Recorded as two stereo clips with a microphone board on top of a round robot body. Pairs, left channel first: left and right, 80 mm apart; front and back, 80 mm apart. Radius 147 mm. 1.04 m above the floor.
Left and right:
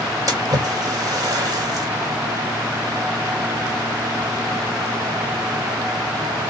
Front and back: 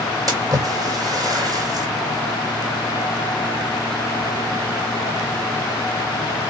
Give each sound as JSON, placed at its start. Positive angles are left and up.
{"t": 0.3, "sound": "a splash", "azimuth_deg": -135, "distance_m": 1.6}